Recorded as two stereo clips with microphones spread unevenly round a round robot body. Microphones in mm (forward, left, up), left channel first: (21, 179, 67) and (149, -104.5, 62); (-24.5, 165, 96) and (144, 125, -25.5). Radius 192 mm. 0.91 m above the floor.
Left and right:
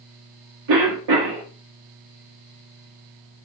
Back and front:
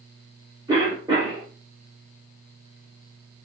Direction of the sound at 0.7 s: 80° right.